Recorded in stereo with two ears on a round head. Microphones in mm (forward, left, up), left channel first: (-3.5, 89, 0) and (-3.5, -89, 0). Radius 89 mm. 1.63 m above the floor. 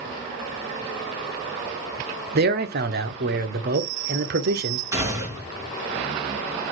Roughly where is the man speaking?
Right.